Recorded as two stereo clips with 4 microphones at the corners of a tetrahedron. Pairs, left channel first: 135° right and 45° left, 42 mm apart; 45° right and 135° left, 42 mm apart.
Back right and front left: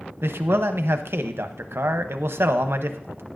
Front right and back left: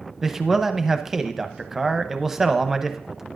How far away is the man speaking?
About 0.7 m.